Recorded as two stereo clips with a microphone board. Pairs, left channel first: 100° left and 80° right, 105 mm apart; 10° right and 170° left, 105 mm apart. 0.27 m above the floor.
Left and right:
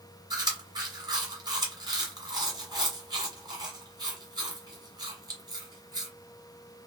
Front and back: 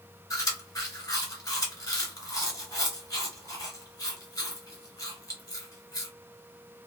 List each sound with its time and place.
0.3 s chewing: 50° right, 1.3 m